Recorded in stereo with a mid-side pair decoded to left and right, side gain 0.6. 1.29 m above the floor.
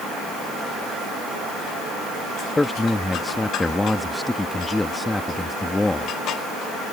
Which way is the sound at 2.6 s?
10° left.